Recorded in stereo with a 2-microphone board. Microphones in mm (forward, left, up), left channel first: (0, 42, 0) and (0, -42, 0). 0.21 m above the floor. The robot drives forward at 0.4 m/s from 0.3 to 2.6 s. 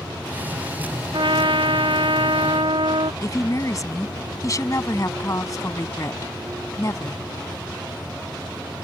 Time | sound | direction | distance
1.1 | a trumpet | 70° right (ahead or behind) | ?
3.2 | a woman speaking | 45° left (ahead or behind) | ?